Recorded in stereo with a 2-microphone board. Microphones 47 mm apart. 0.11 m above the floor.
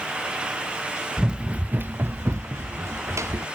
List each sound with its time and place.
1.2 s running footsteps: 15° right (ahead or behind); by 3.5 s 80° right